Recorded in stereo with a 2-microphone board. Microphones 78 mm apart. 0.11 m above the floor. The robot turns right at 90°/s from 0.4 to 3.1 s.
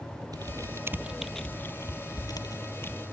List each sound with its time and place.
0.3 s typing on a keyboard: 60° right (ahead or behind); by 3.0 s 20° left (ahead or behind)